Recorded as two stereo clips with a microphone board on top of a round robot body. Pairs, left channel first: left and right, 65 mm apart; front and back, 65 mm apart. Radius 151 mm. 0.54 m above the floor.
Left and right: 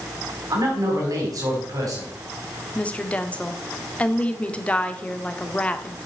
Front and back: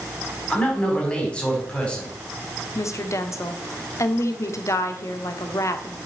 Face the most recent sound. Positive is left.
turn(degrees=25)